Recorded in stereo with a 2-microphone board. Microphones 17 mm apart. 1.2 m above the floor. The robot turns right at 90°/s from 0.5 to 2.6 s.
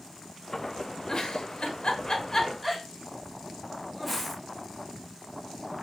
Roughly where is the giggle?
Left.